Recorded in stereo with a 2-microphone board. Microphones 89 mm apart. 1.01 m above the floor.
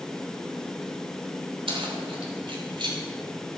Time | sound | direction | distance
1.7 | keys jangling | 85° right | 3 m